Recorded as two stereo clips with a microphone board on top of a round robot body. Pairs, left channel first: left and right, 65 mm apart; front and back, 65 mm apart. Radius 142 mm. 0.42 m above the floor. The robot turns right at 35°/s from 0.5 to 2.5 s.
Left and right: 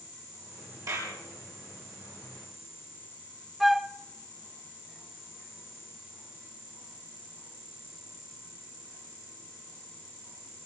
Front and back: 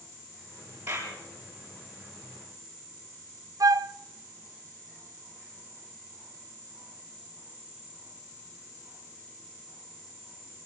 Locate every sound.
0.9 s a clap: 120° right, 7.5 m; by 1.2 s 105° right, 7.5 m
3.6 s a flute: 175° right, 0.5 m